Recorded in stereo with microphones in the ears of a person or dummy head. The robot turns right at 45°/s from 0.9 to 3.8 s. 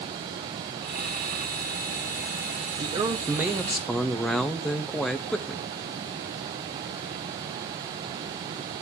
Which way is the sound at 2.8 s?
45° right.